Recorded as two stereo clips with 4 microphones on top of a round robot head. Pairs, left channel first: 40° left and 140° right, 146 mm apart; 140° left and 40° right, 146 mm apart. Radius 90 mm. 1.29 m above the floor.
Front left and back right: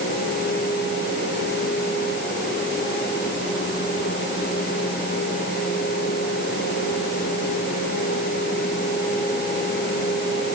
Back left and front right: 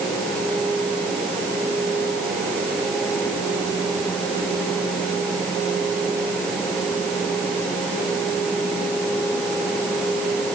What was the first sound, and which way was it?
Only background noise.